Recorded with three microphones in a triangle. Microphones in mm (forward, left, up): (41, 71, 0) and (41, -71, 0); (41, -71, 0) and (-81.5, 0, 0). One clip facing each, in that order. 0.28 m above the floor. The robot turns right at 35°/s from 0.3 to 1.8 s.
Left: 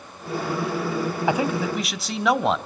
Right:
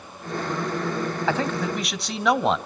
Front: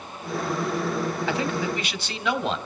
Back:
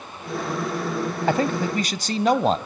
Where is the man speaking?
160° left, 1.5 m; by 2.6 s straight behind, 1.5 m.